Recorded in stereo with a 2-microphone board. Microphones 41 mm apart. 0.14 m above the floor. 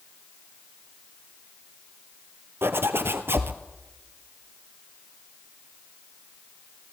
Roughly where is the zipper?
Right.